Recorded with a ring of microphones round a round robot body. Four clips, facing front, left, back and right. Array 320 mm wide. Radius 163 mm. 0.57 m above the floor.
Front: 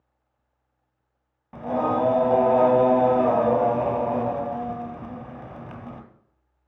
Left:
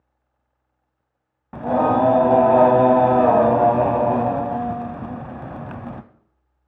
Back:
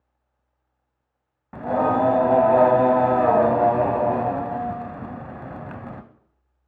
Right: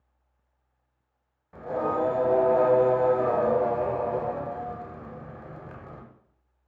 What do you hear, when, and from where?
1.5 s singing: 110° left, 0.7 m